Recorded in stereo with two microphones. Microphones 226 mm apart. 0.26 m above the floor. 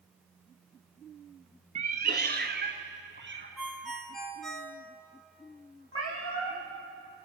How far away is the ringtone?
About 1.7 m.